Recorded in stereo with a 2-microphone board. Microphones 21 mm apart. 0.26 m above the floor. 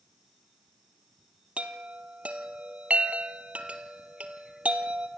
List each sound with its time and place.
1.6 s a chime: 75° right (ahead or behind), 1.6 m